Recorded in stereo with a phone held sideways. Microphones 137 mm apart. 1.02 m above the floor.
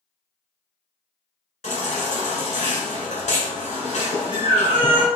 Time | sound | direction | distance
1.6 | a baby crying | 55° left (ahead or behind) | 1.5 m